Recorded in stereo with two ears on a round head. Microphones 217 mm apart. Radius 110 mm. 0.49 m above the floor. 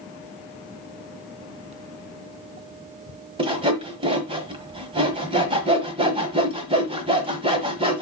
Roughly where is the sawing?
Right.